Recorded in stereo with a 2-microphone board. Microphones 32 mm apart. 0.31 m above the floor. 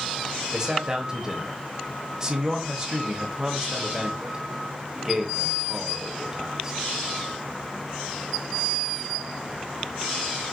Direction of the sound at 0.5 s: 25° right (ahead or behind).